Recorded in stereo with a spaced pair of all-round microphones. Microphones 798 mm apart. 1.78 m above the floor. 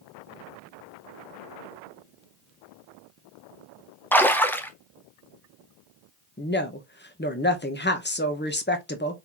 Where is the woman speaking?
15° left (ahead or behind), 0.8 m.